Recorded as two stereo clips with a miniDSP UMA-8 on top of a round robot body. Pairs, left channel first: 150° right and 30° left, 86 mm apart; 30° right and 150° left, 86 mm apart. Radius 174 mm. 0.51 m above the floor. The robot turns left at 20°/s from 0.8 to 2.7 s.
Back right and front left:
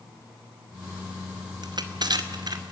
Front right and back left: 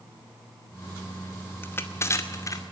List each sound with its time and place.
1.6 s crushing: 30° left, 2.5 m; by 2.6 s 10° left, 2.5 m